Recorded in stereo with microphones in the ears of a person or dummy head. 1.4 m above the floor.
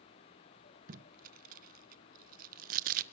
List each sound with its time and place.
0.9 s tape being pulled: 50° right (ahead or behind), 1.0 m